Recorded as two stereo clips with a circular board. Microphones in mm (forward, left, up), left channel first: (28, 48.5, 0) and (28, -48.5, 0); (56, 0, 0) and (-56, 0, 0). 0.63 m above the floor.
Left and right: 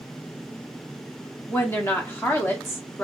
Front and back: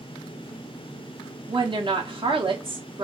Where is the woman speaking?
155° left, 0.9 m.